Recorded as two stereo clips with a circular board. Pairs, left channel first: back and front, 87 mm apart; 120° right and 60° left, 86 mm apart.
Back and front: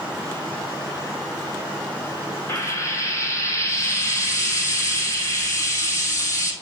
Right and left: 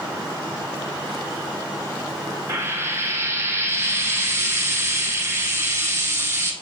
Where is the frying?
120° left, 2.5 m.